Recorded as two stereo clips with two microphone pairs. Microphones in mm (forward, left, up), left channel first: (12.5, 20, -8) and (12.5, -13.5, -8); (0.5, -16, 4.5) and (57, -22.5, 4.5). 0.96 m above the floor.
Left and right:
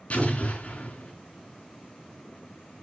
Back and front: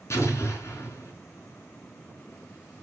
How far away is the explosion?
About 3.5 m.